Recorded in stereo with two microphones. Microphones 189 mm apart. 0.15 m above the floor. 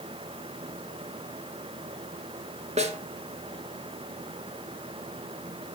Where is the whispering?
No whispering in this recording.